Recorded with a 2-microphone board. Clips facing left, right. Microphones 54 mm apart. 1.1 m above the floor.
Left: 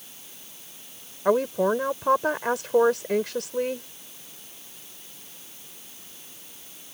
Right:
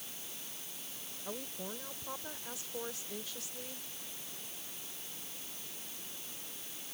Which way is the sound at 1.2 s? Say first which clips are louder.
Left 23 dB; 80° left.